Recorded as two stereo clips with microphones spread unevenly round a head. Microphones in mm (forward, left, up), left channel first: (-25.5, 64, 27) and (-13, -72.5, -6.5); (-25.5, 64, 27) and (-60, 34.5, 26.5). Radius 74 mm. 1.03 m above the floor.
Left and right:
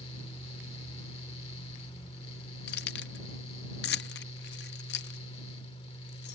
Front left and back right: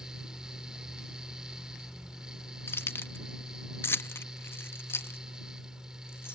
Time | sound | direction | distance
0.0 | a fan | 145° left | ?
2.7 | keys jangling | 75° left | ?